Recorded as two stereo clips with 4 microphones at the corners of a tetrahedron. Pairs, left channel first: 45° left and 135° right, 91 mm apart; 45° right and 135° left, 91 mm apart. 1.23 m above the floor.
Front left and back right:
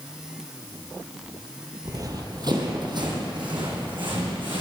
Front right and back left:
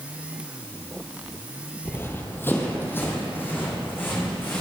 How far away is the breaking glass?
I don't hear breaking glass.